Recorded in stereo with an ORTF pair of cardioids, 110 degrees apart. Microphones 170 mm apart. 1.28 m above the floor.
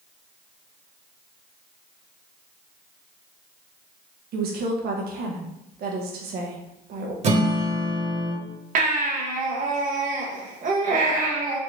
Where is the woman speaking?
65° right, 1.2 m.